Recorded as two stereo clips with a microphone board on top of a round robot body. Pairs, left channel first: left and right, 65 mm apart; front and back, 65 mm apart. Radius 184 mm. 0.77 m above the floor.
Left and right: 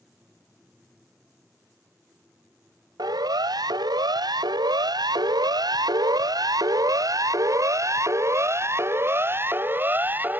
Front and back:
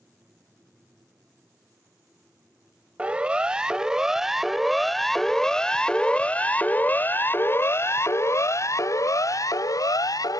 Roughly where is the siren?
Right.